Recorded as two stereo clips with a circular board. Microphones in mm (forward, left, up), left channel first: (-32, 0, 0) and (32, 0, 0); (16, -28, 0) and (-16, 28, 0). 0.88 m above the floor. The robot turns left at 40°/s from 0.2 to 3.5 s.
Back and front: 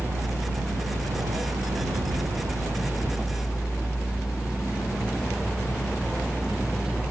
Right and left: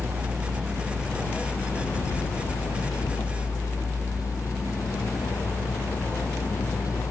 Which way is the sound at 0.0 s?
55° left.